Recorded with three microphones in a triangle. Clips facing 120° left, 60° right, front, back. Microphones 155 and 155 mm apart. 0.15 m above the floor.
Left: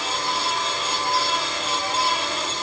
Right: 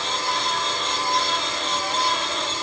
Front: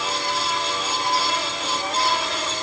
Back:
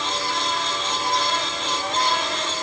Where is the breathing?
No breathing in this recording.